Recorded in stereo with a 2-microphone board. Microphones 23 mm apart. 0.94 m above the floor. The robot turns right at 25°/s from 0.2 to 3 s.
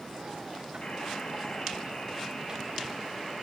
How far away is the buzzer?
About 1.8 m.